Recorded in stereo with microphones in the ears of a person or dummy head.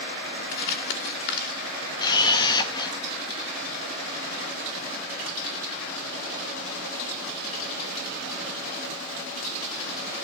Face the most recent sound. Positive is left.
turn(degrees=25)  # may be behind; listen again after turning